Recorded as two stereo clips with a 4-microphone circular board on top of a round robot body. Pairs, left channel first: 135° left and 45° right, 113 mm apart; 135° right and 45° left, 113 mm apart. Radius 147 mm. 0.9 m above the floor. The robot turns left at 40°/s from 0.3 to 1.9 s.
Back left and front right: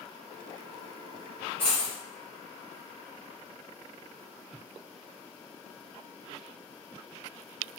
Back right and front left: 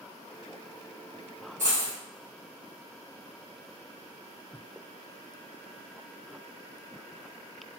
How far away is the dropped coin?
About 1.5 m.